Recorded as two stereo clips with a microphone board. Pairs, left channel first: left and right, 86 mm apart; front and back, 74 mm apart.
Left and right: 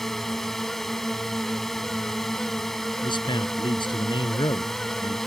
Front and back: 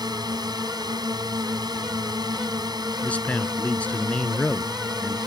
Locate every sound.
0.0 s a drone: 175° left
3.0 s a man speaking: 70° left